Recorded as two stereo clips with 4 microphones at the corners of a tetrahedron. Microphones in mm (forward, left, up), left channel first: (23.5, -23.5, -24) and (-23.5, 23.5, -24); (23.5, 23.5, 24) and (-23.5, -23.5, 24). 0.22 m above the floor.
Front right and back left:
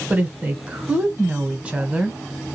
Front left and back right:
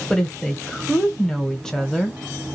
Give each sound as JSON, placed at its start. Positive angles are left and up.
{"t": 0.1, "sound": "a woman speaking", "azimuth_deg": 110, "distance_m": 1.0}